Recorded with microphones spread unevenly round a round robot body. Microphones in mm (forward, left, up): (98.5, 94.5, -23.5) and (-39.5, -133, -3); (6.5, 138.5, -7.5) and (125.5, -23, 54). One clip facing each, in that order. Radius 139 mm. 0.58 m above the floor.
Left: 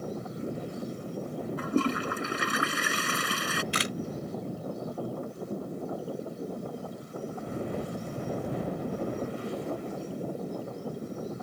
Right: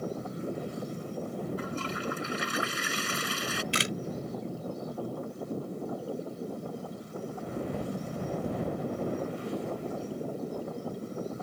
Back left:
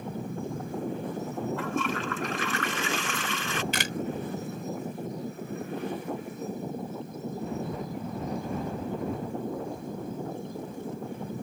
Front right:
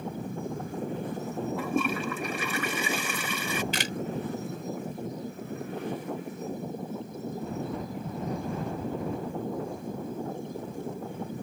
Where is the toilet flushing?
25° left.